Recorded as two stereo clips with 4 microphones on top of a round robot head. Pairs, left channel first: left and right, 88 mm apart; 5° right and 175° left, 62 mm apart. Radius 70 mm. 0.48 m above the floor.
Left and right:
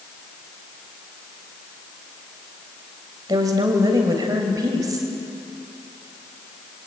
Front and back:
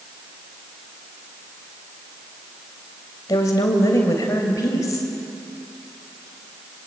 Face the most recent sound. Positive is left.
turn(degrees=-40)